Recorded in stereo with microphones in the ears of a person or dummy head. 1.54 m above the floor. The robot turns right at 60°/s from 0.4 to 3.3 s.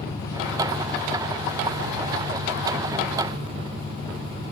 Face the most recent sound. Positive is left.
turn(degrees=-35)